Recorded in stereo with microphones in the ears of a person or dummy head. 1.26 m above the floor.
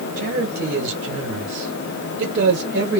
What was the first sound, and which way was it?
A man speaking, 45° right (ahead or behind).